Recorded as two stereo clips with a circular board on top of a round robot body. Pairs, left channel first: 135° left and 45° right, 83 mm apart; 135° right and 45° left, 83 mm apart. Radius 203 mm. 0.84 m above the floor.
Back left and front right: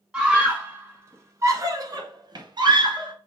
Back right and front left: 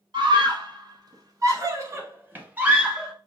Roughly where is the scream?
Ahead left.